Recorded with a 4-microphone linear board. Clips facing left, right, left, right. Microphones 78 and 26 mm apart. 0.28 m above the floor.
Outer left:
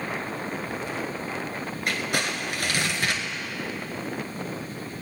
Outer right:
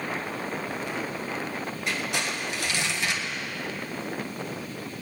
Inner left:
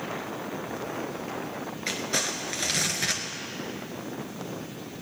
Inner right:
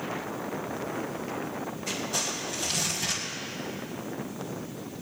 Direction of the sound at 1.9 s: 55° left (ahead or behind).